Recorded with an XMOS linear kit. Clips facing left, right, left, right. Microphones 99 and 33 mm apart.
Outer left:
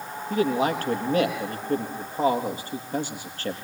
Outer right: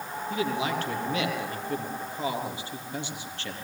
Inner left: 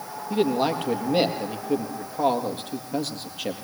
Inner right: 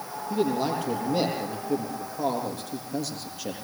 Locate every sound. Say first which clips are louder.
0.3 s a man speaking: outer left 6 dB, inner left 3 dB; 45° left (ahead or behind), 4 m